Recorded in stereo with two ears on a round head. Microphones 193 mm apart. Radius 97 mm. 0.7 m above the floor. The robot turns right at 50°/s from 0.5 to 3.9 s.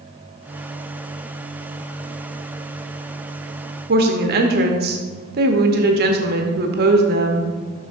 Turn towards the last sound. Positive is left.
turn(degrees=-50)  # may be behind; listen again after turning